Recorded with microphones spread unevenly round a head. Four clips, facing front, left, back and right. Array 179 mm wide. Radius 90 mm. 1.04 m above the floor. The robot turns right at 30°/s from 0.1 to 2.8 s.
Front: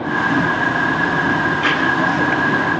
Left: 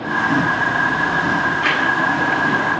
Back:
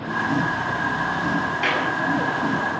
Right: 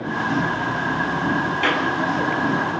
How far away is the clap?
About 9.5 m.